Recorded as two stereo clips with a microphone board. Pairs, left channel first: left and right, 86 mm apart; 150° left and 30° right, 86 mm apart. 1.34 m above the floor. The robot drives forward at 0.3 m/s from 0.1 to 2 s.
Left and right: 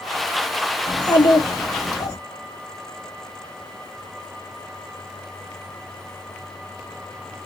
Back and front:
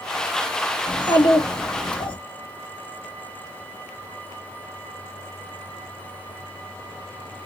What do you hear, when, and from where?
0.9 s a child speaking: 120° left, 1.3 m; by 2.2 s 130° left, 1.5 m